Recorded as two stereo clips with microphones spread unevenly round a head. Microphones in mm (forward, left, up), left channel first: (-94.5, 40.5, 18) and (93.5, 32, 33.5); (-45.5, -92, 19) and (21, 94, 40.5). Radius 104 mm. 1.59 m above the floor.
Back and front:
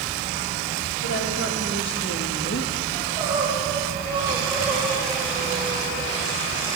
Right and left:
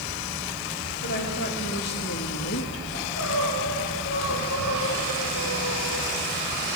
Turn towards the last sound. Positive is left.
turn(degrees=-80)